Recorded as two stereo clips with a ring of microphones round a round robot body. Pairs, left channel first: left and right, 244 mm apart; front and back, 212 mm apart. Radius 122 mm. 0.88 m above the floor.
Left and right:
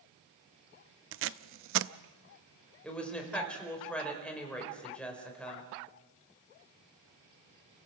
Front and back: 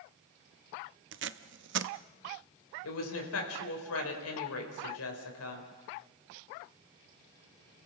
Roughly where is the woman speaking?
Ahead.